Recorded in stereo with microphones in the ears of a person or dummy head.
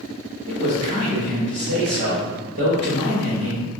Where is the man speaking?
50° right (ahead or behind), 1.7 m.